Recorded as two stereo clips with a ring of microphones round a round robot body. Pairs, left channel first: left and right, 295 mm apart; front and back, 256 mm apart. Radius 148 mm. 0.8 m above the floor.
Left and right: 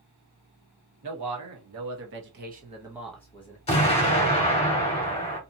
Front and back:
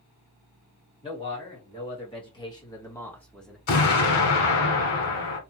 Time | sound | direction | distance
1.0 | a man speaking | 70° right | 1.5 m
3.7 | an explosion | 20° left | 1.4 m